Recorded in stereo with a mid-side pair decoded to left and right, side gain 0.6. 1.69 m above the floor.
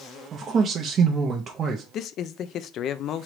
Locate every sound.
0.3 s a man speaking: 40° right, 0.6 m
1.9 s a man speaking: 55° left, 0.5 m